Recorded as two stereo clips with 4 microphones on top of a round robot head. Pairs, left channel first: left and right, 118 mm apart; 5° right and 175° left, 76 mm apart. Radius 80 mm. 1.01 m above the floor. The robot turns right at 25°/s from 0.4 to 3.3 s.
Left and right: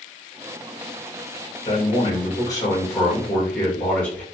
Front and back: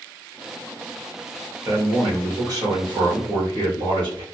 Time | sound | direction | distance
1.6 | a man speaking | 125° left | 1.7 m